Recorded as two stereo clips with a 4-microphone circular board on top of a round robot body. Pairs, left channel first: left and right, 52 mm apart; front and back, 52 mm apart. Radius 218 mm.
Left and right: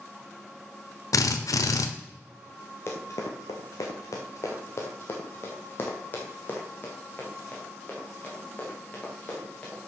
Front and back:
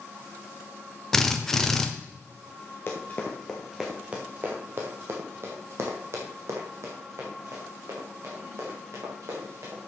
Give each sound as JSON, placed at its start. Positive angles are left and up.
{"t": 1.1, "sound": "a drill", "azimuth_deg": 85, "distance_m": 0.9}
{"t": 2.9, "sound": "running footsteps", "azimuth_deg": 50, "distance_m": 0.8}